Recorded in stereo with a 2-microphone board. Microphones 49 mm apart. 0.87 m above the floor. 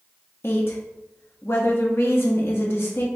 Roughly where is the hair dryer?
I don't hear a hair dryer.